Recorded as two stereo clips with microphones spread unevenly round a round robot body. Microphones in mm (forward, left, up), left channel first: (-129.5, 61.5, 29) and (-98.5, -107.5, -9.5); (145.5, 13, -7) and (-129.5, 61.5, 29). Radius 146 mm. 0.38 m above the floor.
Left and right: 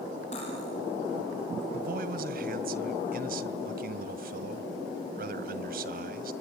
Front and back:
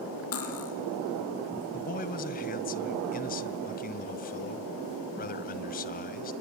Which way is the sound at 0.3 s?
30° left.